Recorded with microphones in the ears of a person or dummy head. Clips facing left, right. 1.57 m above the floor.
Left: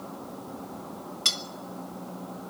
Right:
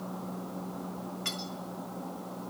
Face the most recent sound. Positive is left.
turn(degrees=55)  # may be behind; listen again after turning